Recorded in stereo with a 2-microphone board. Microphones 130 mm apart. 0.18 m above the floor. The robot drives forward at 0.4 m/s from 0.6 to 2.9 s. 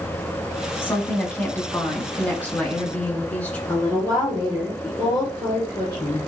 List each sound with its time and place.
0.8 s a woman speaking: 15° left (ahead or behind), 1.0 m; by 3.6 s 10° left (ahead or behind), 1.6 m
3.7 s a woman speaking: 10° right (ahead or behind), 2.5 m